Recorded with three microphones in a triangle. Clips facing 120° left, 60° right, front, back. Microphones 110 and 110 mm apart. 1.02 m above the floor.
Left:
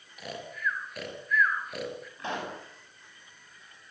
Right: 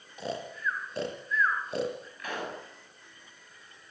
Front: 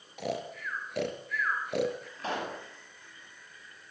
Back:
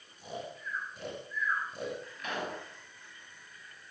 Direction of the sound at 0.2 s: Straight ahead.